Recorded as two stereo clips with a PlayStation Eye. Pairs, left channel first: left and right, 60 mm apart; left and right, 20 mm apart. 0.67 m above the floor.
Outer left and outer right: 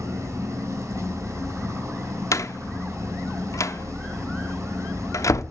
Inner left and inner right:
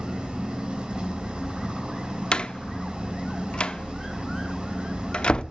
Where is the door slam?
65° left (ahead or behind), 0.7 m.